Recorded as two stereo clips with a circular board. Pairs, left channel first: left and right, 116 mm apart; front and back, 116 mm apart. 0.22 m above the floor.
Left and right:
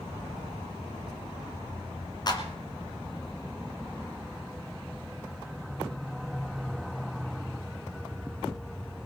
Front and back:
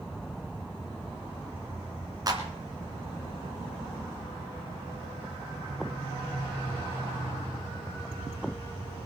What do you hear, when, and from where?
2.3 s a clap: 135° left, 2 m